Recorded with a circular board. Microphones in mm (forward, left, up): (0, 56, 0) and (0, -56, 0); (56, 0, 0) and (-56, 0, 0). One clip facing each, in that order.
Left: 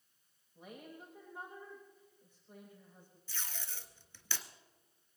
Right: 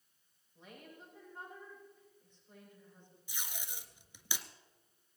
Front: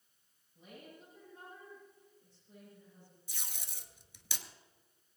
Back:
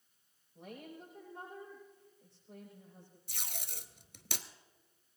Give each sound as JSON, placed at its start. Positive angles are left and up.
{"t": 0.6, "sound": "a woman speaking", "azimuth_deg": 170, "distance_m": 9.0}
{"t": 3.3, "sound": "tape being pulled", "azimuth_deg": -165, "distance_m": 1.0}